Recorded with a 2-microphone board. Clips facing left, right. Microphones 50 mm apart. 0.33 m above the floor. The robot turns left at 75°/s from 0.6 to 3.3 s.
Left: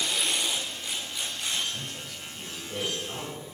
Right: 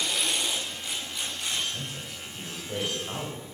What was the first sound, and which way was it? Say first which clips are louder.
A man speaking: even; 10° left.